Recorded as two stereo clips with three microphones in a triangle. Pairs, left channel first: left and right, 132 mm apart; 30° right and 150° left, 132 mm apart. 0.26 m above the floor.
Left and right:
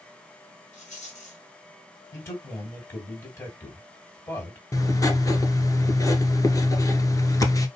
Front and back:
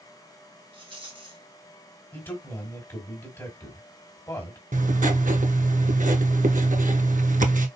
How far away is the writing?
About 0.8 m.